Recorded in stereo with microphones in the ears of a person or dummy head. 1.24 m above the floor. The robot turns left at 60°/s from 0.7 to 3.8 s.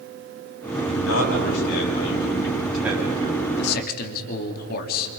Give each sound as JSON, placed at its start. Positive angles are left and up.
{"t": 0.8, "sound": "a man speaking", "azimuth_deg": 120, "distance_m": 8.0}
{"t": 3.6, "sound": "a man speaking", "side_deg": 70, "distance_m": 3.0}